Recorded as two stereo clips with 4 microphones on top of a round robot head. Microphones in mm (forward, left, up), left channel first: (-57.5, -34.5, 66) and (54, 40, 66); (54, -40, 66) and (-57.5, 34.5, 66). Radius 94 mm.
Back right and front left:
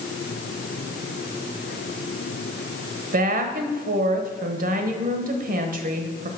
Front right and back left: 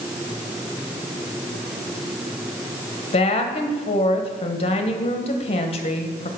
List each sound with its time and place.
3.1 s a woman speaking: 15° left, 1.1 m